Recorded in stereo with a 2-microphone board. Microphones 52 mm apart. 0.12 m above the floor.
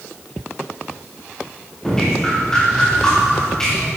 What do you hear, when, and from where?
1.8 s dripping: 10° left (ahead or behind), 9 m